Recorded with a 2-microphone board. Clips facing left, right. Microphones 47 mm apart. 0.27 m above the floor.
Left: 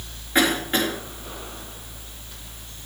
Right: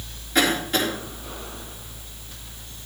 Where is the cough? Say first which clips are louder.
Left 1 dB; 25° left (ahead or behind), 4.5 m.